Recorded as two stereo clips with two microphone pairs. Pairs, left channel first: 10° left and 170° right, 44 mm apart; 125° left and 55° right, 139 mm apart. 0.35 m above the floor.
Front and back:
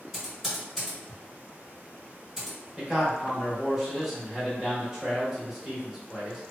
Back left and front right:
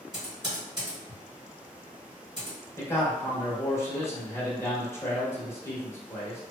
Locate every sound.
0.1 s typing on a keyboard: 85° right, 1.6 m
2.8 s a man speaking: 130° left, 1.0 m